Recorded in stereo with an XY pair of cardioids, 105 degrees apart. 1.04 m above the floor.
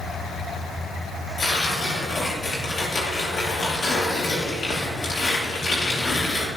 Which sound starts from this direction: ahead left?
Tearing paper, at 1.4 s.